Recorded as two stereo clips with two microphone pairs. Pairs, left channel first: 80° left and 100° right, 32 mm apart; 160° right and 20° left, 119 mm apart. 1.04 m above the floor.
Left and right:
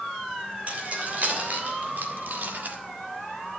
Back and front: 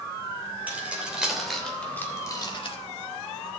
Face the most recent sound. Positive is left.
turn(degrees=-125)